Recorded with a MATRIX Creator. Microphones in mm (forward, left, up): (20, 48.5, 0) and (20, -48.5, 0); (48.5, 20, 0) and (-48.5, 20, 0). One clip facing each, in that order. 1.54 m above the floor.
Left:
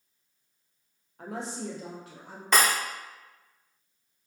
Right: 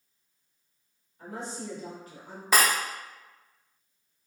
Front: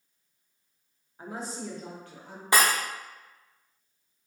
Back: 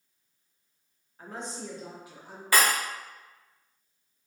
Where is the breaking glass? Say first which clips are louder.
Even, front 1 dB; 20° right, 0.6 m.